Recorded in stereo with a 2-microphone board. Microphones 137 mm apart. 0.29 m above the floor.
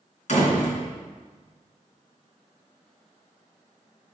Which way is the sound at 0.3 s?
60° left (ahead or behind).